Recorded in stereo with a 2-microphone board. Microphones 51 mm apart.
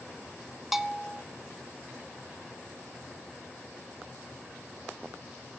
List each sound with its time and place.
0.7 s a bell: 5° right (ahead or behind), 0.5 m